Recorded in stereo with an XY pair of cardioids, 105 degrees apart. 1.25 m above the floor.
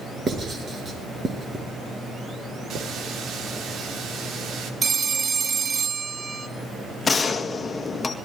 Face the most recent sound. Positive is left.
turn(degrees=30)